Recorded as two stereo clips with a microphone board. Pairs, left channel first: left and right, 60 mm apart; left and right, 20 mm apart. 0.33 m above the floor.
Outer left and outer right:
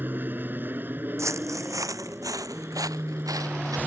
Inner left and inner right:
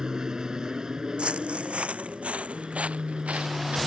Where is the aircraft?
35° right (ahead or behind).